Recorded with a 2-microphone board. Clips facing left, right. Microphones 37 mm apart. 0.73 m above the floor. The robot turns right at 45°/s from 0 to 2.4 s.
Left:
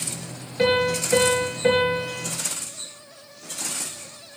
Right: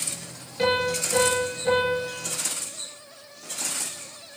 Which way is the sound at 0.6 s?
15° left.